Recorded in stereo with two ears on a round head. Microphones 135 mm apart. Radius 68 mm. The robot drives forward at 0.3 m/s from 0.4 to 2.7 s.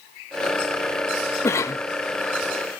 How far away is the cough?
About 0.6 m.